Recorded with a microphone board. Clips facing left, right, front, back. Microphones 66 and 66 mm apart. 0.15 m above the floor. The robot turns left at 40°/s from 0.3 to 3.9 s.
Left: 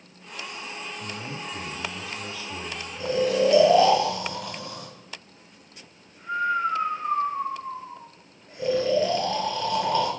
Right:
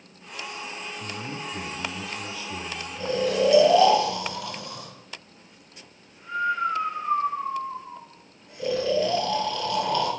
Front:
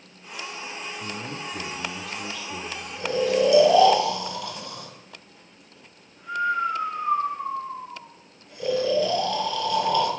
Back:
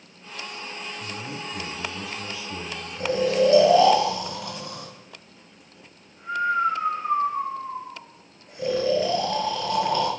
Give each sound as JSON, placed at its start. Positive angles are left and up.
{"t": 1.0, "sound": "a man speaking", "azimuth_deg": -80, "distance_m": 1.4}
{"t": 3.0, "sound": "snoring", "azimuth_deg": 165, "distance_m": 0.9}